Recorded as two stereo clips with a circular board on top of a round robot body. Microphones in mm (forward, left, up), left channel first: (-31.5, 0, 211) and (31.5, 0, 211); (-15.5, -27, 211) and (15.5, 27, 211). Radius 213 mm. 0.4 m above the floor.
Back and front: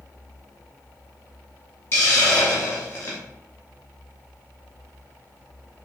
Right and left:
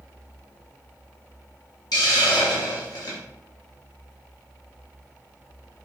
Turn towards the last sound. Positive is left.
turn(degrees=-125)